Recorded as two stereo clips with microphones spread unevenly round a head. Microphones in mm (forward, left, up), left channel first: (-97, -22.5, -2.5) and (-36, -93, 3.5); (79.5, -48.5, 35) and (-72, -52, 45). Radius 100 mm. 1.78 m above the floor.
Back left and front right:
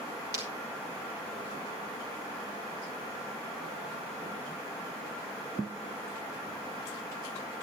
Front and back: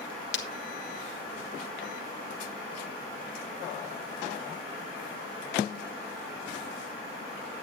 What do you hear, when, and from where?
0.3 s breaking glass: 15° left, 1.6 m